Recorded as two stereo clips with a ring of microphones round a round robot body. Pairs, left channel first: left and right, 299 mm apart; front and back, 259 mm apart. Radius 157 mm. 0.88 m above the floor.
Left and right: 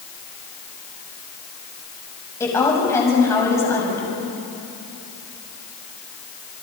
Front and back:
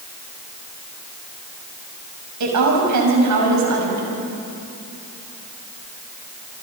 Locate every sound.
2.4 s a woman speaking: 170° left, 6 m